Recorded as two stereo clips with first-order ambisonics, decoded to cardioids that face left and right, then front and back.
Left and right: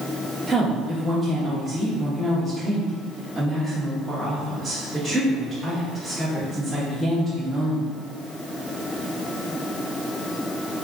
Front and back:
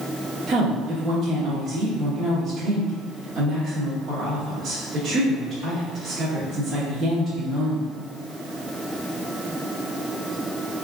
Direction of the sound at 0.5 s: 175° right.